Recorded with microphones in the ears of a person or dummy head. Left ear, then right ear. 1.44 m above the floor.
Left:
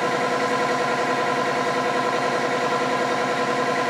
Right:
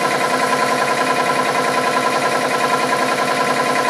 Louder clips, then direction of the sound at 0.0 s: Right 5 dB; 75° right (ahead or behind).